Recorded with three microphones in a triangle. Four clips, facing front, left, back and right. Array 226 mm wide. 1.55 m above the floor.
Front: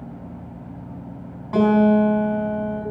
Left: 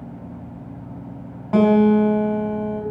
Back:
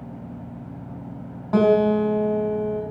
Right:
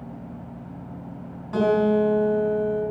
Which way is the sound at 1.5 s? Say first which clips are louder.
Left 5 dB, front 1 dB; 130° left.